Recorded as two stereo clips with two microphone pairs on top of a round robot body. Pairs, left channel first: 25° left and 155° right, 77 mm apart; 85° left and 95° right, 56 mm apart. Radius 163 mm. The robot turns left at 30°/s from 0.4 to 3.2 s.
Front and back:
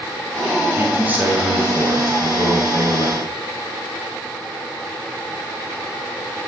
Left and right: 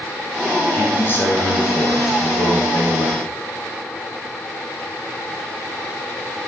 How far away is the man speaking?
About 6 m.